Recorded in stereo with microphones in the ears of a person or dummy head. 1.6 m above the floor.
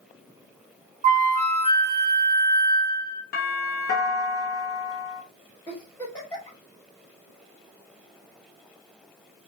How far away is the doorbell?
About 1.0 m.